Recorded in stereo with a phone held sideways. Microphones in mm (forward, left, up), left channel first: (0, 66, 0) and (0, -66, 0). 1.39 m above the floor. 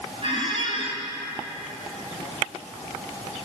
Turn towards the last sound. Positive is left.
turn(degrees=-45)  # may be behind; listen again after turning